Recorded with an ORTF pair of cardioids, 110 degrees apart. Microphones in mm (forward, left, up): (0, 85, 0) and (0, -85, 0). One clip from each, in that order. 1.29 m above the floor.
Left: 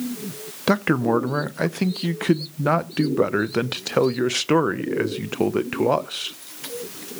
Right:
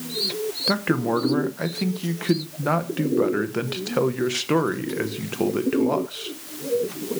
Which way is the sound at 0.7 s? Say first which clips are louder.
Left 4 dB; 40° left.